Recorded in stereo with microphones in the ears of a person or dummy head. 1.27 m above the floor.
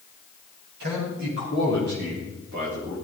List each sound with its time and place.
0.8 s a man speaking: 75° right (ahead or behind), 8.5 m